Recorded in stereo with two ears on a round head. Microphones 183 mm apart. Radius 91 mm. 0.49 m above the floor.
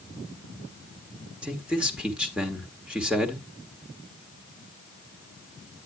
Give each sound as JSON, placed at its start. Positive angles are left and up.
{"t": 1.4, "sound": "a man speaking", "side_deg": -5, "distance_m": 1.5}